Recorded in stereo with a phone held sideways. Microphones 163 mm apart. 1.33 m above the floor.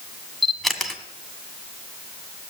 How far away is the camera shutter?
About 1.5 m.